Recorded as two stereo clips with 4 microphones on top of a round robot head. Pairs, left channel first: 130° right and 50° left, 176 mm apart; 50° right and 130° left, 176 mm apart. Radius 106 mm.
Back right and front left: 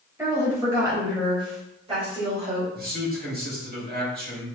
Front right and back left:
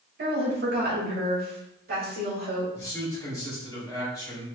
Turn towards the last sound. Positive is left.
turn(degrees=25)